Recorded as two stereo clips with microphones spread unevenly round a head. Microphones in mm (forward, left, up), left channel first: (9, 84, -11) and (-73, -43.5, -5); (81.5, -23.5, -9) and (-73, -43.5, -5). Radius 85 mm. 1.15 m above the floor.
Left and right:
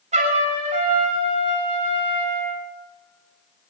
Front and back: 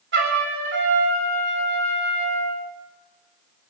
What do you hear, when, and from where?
0.1 s a trumpet: 165° right, 4 m